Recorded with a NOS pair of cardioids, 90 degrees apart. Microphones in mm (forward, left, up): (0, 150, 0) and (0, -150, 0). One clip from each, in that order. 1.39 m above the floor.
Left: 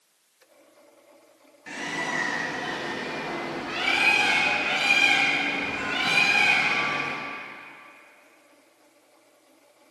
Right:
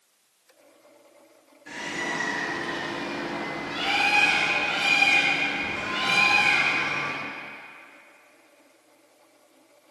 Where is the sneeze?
I don't hear a sneeze.